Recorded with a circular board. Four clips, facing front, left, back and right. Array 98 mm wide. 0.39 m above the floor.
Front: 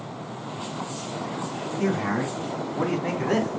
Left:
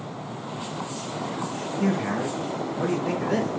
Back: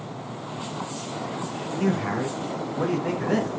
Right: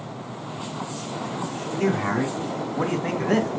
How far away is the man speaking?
About 3 m.